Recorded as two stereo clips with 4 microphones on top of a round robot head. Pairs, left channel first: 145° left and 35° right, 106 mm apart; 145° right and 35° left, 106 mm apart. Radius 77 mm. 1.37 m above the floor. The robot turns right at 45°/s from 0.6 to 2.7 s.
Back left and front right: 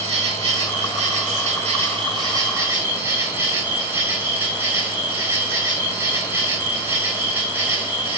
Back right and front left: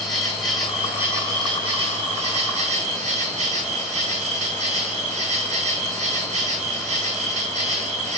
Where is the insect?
60° right, 4 m; by 8.2 s 35° left, 4 m.